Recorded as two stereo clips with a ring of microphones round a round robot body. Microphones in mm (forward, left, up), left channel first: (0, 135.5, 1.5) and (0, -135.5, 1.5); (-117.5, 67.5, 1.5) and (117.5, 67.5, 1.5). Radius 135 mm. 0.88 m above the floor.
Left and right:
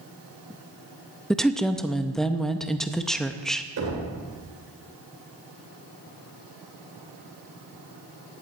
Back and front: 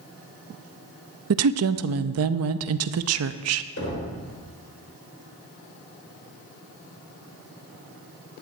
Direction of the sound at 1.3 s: Straight ahead.